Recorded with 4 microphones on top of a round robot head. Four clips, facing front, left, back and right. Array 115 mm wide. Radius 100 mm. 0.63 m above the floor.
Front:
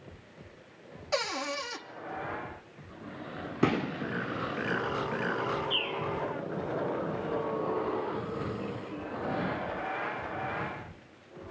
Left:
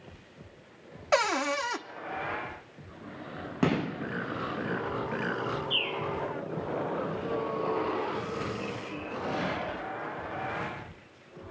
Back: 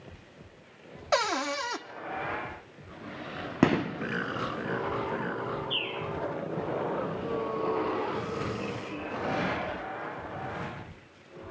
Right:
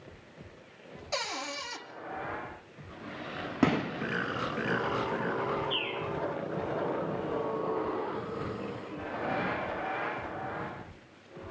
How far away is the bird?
About 3 m.